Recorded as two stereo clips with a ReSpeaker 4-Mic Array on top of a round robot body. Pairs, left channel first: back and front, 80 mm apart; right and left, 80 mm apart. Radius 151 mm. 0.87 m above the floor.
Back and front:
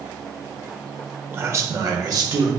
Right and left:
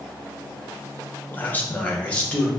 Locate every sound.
1.3 s a man speaking: 45° right, 1.0 m; by 2.5 s 20° right, 1.9 m